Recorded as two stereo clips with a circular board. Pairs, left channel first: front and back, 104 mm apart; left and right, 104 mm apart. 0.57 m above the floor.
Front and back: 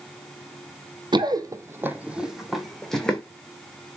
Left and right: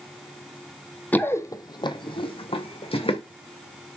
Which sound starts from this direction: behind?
Running footsteps, at 1.1 s.